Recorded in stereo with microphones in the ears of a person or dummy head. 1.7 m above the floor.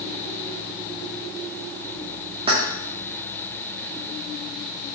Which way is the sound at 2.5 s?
30° right (ahead or behind).